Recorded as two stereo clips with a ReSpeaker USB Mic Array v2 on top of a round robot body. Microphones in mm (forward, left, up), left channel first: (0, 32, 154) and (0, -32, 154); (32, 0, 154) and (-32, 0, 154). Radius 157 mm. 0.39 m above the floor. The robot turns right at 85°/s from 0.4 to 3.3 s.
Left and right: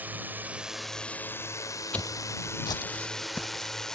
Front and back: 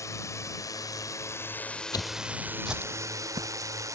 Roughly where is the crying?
I don't hear crying.